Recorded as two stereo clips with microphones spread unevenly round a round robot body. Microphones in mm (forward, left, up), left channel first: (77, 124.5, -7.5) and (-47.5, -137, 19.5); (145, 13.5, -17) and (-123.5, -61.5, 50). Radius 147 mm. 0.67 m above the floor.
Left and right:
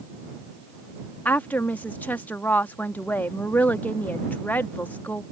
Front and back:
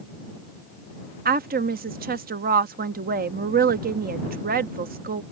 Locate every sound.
1.2 s a woman speaking: 135° left